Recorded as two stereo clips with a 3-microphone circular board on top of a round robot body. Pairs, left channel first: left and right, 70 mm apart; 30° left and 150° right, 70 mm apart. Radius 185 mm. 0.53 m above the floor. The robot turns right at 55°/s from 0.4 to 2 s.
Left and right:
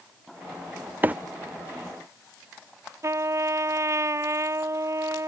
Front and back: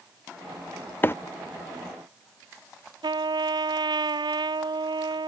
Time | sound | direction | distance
1.0 | a microwave | 30° right | ?
3.0 | a trumpet | 140° right | ?